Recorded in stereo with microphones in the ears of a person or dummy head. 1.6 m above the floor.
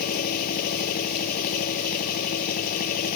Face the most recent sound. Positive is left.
turn(degrees=50)  # may be behind; listen again after turning